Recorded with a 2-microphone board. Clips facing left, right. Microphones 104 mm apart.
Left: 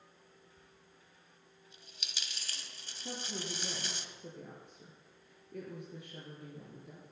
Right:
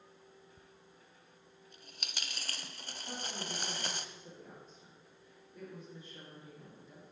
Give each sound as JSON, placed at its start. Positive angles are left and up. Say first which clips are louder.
{"t": 0.6, "sound": "a dropped coin", "louder": "right 2 dB", "side_deg": -50, "distance_m": 0.8}
{"t": 3.0, "sound": "a woman speaking", "louder": "left 2 dB", "side_deg": 75, "distance_m": 4.0}